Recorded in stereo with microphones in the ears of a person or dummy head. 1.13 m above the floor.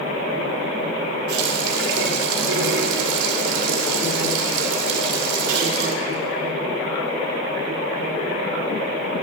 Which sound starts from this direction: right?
A running tap, at 1.3 s.